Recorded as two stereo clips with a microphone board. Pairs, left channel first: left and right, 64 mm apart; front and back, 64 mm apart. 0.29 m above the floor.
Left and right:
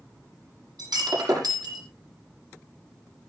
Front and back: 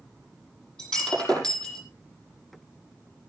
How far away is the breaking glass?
About 7 m.